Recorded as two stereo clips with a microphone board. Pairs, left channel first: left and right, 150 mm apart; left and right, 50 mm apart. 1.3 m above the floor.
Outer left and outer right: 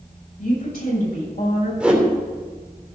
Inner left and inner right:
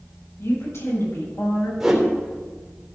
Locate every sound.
0.4 s a woman speaking: 75° left (ahead or behind), 6 m; by 1.7 s 80° left, 7.5 m
1.8 s a whoosh: 10° right (ahead or behind), 3 m